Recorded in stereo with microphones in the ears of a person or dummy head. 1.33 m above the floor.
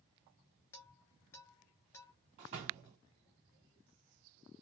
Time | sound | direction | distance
0.7 | dishes clattering | 10° left (ahead or behind) | 1.3 m
2.4 | a door slam | 30° right (ahead or behind) | 0.6 m